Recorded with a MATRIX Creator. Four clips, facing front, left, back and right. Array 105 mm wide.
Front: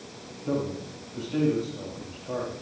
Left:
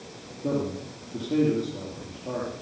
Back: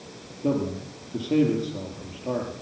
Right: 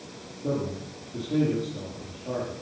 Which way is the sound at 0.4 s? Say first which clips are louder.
Left 2 dB, back 3 dB; 170° left.